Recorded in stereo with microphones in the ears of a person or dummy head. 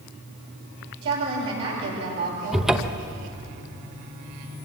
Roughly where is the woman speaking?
Right.